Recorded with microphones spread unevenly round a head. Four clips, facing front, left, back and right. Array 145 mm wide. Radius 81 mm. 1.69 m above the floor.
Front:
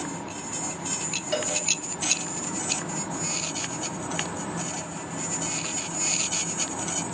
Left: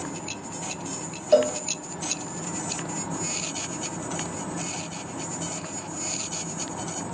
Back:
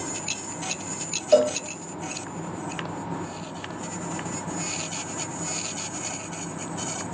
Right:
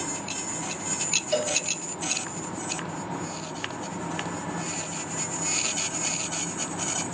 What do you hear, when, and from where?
1.3 s a cowbell: 135° left, 0.6 m